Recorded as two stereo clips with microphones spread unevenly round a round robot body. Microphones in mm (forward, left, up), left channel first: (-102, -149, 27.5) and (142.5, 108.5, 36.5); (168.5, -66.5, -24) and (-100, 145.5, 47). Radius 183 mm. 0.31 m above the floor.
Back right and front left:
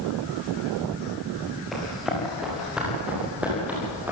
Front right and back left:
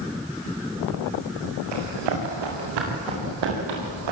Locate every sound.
1.7 s running footsteps: 135° left, 8.5 m; by 4.1 s 130° left, 9.5 m